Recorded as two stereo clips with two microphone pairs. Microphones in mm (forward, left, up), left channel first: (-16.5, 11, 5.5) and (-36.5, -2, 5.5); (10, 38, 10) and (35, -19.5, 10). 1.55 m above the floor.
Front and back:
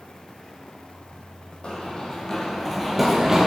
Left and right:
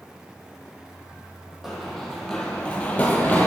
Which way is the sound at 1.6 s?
20° left.